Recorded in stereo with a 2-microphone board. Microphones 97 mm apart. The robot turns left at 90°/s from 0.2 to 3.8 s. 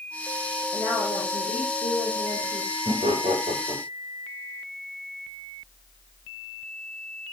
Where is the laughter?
50° right (ahead or behind), 8.5 m; by 3.8 s 40° right (ahead or behind), 8.5 m.